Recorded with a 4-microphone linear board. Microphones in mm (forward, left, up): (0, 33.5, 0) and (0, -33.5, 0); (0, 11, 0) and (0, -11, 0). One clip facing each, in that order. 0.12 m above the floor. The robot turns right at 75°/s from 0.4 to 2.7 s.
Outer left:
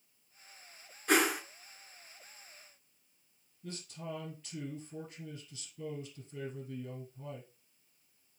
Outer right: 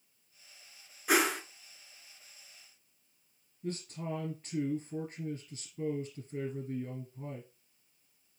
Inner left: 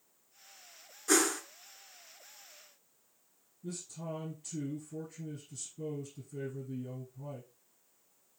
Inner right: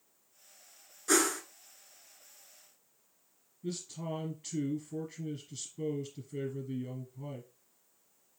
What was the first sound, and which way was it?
A whoosh, 5° right (ahead or behind).